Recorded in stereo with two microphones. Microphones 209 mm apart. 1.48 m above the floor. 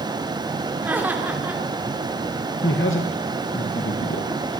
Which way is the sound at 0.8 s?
10° right (ahead or behind).